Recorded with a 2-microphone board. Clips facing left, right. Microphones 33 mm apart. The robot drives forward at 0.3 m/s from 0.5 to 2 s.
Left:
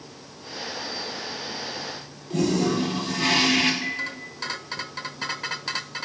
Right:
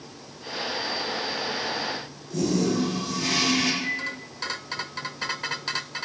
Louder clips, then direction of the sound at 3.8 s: Even; 35° left (ahead or behind).